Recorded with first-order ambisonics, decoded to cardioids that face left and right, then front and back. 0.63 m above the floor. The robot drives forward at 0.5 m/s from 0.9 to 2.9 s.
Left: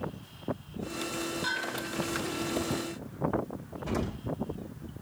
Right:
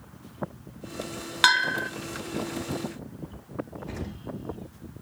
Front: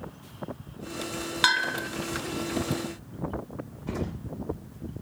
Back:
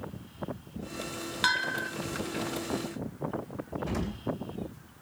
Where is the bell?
70° right, 0.6 m; by 1.9 s 95° right, 0.5 m.